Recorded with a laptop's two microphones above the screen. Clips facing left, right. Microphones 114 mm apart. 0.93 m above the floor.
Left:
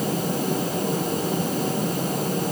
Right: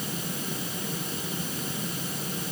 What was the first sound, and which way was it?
A fan, 50° left (ahead or behind).